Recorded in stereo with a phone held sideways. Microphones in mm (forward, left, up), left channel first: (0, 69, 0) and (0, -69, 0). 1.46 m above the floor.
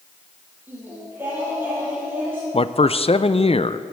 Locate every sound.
0.7 s singing: 15° right (ahead or behind), 7 m
2.5 s a man speaking: 45° left (ahead or behind), 0.5 m